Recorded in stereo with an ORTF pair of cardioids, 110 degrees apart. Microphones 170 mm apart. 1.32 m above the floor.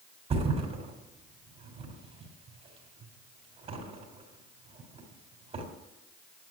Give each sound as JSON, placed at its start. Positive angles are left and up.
{"t": 0.3, "sound": "a thud", "azimuth_deg": -40, "distance_m": 3.5}